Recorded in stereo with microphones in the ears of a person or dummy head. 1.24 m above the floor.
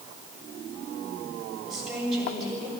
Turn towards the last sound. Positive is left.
turn(degrees=-5)  # may be behind; listen again after turning